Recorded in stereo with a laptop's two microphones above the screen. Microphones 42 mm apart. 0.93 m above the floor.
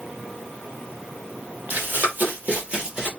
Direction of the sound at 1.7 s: 50° right (ahead or behind).